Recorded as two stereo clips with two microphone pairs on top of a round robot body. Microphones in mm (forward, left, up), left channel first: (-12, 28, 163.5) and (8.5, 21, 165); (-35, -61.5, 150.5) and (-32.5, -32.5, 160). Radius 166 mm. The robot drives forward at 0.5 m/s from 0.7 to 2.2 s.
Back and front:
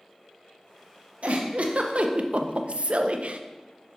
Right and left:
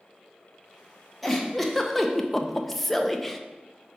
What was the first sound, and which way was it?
A giggle, 10° right.